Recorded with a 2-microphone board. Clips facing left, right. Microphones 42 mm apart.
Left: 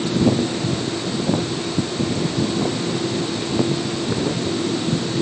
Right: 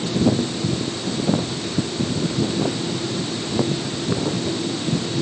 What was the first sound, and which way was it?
Only background noise.